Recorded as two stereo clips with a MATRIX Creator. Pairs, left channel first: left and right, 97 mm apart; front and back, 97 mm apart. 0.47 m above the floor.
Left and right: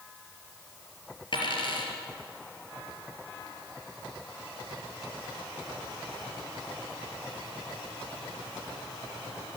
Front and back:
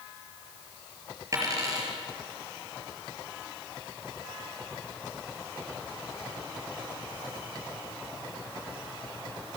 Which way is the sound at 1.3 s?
125° left.